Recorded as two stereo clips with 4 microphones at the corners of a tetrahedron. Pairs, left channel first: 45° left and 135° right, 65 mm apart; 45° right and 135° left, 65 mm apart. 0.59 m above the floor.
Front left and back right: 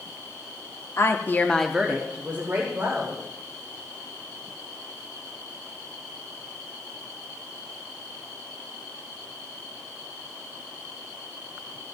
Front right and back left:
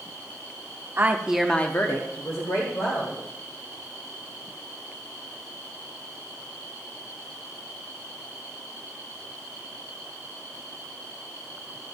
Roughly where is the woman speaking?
Left.